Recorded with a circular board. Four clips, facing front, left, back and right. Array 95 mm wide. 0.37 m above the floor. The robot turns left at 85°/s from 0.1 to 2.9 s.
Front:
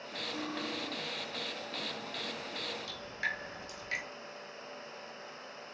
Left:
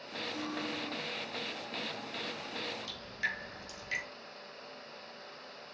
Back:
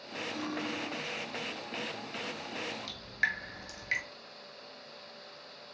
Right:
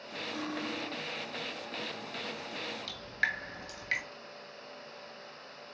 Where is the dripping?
120° right, 1.2 m; by 4.0 s 125° right, 1.2 m.